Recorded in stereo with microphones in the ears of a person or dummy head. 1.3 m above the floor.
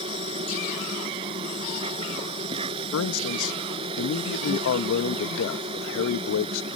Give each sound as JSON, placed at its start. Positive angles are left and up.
{"t": 0.0, "sound": "an insect", "side_deg": -30}
{"t": 2.9, "sound": "a man speaking", "side_deg": 80}